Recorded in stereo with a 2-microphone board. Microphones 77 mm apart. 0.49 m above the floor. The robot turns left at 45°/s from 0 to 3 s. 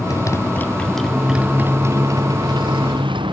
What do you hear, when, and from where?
0.0 s a motorcycle: 50° left; by 3.3 s 85° right